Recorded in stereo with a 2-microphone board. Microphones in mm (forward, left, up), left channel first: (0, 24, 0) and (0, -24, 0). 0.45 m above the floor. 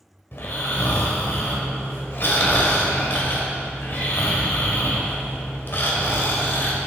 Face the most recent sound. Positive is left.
turn(degrees=50)  # may be behind; listen again after turning